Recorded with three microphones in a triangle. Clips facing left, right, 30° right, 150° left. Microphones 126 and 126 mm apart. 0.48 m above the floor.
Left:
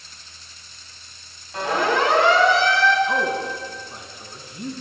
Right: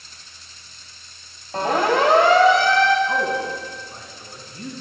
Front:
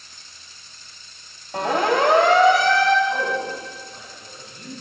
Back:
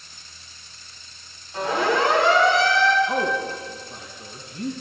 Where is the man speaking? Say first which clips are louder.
Even, even; 165° left, 4 m.